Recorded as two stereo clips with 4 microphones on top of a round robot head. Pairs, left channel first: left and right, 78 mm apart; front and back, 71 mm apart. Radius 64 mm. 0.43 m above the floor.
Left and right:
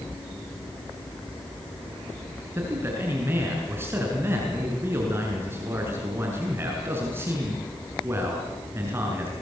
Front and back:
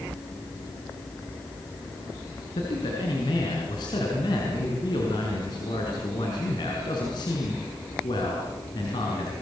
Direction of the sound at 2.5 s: 30° right.